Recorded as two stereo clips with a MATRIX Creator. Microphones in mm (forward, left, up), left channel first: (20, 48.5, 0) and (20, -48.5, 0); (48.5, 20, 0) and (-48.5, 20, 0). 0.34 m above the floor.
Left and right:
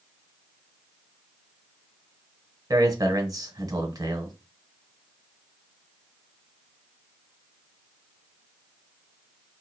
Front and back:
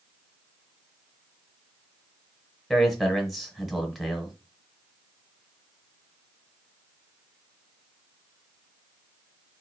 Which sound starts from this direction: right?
A man speaking, at 2.7 s.